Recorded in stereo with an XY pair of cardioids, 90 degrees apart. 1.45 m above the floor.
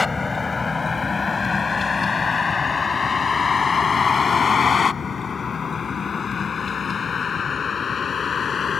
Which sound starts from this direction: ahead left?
A vehicle, at 0.0 s.